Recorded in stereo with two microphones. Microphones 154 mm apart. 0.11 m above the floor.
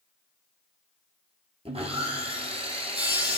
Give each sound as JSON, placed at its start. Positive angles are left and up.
{"t": 1.6, "sound": "sawing", "side_deg": -40, "distance_m": 1.2}